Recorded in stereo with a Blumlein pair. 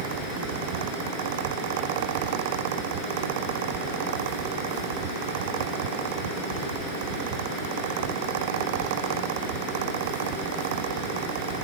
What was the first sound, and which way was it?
A fan, 50° right.